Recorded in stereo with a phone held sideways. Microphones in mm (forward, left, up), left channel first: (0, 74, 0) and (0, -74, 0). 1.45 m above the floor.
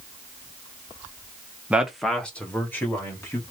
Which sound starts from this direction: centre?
A man speaking, at 1.7 s.